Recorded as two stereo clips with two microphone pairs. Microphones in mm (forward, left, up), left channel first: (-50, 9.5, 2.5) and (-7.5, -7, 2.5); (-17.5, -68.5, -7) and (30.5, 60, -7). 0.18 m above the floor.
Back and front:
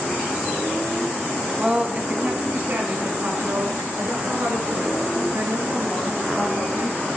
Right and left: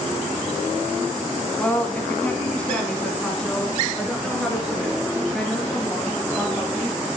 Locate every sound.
1.6 s a woman speaking: 60° right, 1.3 m; by 7.0 s 20° right, 3.5 m